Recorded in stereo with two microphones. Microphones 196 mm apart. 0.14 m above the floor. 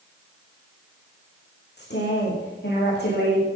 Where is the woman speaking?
60° left (ahead or behind), 9 m.